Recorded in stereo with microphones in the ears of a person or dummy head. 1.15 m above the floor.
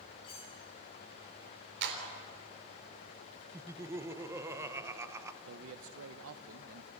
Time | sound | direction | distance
0.2 | cutlery clinking | 30° left (ahead or behind) | 7.5 m
1.8 | a clap | 60° right (ahead or behind) | 3.5 m
3.5 | laughter | 15° right (ahead or behind) | 1.0 m
5.5 | a man speaking | 70° right (ahead or behind) | 0.8 m